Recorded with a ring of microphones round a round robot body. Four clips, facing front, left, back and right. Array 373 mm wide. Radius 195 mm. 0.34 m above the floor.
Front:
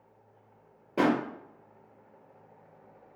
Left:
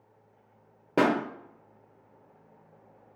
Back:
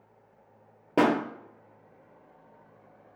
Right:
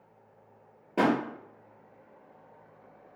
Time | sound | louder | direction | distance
1.0 | a pop | left 1 dB, back 2 dB | 140° left | 0.6 m